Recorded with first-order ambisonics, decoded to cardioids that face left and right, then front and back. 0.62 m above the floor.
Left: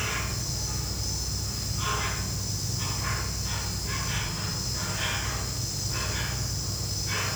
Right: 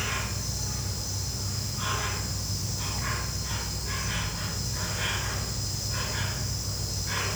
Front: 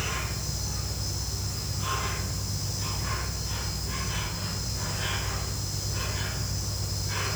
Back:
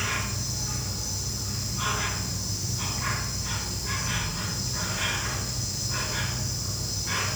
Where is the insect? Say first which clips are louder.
Left 1 dB, back 3 dB; 170° right, 4 m.